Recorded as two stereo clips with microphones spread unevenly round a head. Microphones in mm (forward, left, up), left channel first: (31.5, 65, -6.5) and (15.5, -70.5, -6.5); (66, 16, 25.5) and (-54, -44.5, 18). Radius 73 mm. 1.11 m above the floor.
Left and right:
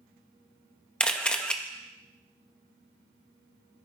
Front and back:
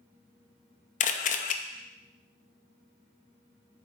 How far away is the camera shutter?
About 0.6 m.